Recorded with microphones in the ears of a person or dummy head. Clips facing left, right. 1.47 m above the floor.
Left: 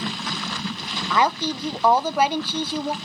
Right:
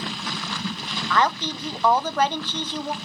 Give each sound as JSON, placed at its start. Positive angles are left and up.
{"t": 1.1, "sound": "a woman speaking", "side_deg": 10, "distance_m": 0.6}